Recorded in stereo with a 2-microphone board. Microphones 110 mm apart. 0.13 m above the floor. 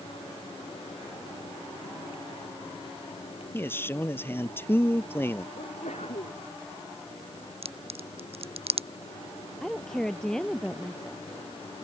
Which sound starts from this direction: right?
A crack, at 7.6 s.